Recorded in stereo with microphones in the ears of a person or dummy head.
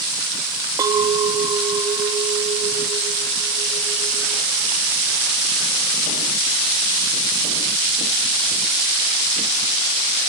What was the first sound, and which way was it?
A clink, 15° right (ahead or behind).